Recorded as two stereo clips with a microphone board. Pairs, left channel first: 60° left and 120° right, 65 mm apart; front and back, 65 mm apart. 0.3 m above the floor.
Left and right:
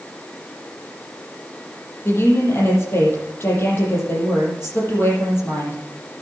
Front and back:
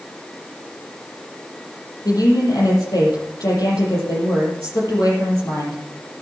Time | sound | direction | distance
2.0 | a woman speaking | 10° left | 7.5 m